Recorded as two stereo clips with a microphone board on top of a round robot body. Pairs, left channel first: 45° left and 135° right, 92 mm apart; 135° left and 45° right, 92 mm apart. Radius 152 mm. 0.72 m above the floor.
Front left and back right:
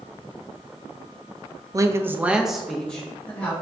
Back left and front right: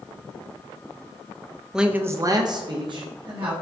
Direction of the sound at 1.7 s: 125° right.